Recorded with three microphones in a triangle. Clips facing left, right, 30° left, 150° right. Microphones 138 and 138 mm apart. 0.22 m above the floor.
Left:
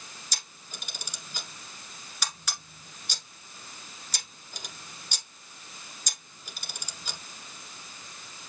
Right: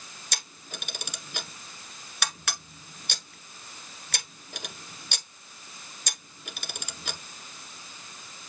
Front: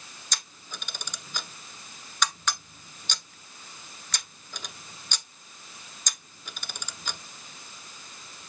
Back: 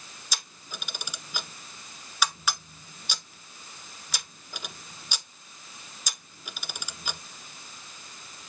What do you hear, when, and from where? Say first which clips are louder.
0.3 s a camera shutter: right 9 dB, back 1 dB; 65° right, 1.1 m